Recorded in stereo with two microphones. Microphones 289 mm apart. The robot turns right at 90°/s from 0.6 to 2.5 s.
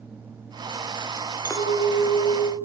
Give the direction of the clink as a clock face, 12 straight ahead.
12 o'clock.